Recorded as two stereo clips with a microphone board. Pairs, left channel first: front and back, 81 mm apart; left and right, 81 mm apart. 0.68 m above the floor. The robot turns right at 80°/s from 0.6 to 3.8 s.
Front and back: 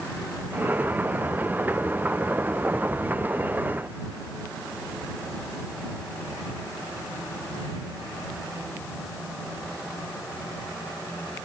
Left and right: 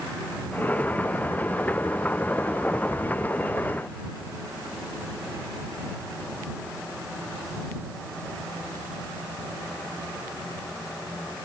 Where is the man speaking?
I don't hear a man speaking.